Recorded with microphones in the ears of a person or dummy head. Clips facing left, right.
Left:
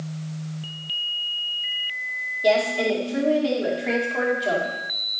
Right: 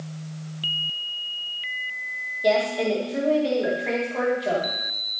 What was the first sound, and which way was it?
A woman speaking, 5° left (ahead or behind).